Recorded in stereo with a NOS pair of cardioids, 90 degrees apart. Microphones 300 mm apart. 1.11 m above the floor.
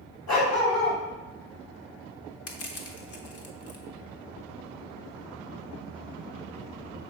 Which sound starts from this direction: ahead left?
Crushing, at 2.5 s.